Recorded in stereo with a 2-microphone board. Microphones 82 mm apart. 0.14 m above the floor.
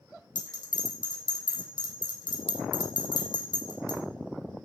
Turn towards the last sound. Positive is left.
turn(degrees=45)  # may be behind; listen again after turning